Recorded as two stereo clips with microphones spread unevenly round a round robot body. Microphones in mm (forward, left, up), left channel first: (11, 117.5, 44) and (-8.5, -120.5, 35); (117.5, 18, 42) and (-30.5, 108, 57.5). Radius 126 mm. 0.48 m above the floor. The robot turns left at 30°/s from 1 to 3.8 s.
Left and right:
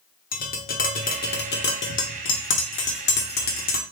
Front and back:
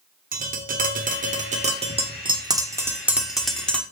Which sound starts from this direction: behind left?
Tapping, at 0.3 s.